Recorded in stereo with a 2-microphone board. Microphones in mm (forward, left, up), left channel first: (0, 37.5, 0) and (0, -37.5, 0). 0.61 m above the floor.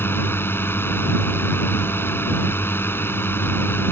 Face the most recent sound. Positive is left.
turn(degrees=30)  # may be behind; listen again after turning